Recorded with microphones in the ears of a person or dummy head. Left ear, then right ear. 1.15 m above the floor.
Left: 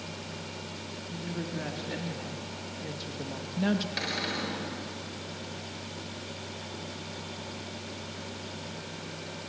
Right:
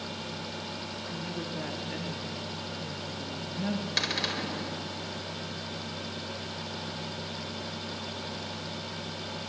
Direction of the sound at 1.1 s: 10° right (ahead or behind).